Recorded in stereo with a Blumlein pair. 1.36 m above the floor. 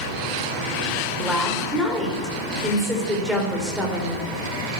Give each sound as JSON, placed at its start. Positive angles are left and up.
{"t": 1.2, "sound": "a woman speaking", "azimuth_deg": -5, "distance_m": 4.0}